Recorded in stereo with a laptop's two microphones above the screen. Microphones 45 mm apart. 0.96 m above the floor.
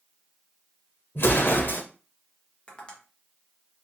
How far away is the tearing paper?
No tearing paper in this recording.